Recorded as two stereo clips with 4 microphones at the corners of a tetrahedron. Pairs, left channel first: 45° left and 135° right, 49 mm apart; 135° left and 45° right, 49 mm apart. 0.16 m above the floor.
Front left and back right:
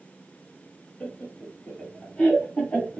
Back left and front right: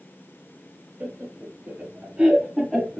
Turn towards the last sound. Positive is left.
turn(degrees=70)